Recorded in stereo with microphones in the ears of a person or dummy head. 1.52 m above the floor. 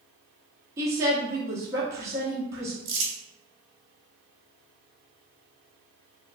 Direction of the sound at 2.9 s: 65° right (ahead or behind).